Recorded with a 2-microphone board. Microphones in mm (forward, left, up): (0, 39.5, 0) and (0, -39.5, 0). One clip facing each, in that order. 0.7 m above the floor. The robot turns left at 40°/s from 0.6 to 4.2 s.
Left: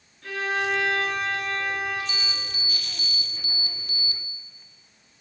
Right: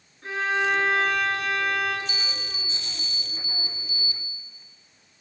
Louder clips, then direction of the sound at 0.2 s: Right 2 dB; 30° right.